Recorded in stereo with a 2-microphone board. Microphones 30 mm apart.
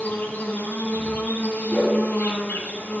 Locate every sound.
0.0 s an insect: 80° left, 10 m
1.7 s a whoosh: 65° left (ahead or behind), 5 m